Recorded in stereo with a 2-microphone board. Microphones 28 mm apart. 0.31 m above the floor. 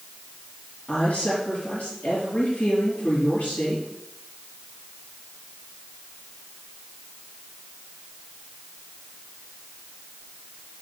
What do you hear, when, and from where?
0.9 s a woman speaking: 55° left (ahead or behind), 4.5 m